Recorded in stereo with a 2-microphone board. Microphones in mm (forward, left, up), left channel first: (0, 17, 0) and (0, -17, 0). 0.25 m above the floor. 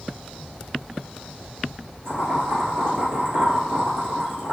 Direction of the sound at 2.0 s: 75° right (ahead or behind).